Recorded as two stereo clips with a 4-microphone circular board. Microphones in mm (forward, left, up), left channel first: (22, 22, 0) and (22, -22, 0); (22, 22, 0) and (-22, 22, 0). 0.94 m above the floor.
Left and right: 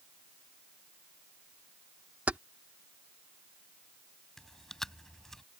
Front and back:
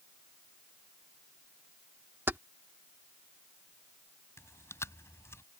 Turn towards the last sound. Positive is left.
turn(degrees=5)